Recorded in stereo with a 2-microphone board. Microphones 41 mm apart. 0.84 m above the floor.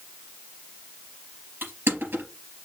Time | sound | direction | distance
1.6 | crushing | 65° right (ahead or behind) | 3.5 m